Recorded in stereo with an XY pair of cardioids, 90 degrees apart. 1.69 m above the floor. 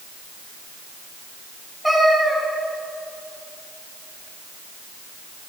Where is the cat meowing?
5° right, 3.5 m.